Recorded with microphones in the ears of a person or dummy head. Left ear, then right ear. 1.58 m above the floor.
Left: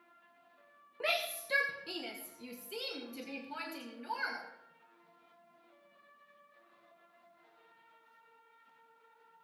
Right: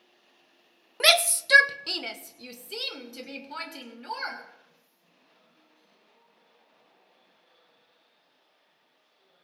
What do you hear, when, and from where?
1.0 s a shout: 60° right (ahead or behind), 0.6 m; by 4.4 s 25° right (ahead or behind), 3 m